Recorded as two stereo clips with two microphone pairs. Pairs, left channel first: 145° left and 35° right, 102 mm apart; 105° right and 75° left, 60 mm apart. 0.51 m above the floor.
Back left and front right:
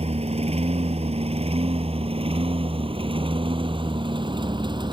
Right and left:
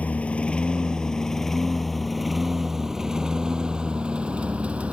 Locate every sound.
0.0 s a lawn mower: 40° right; by 4.9 s 5° left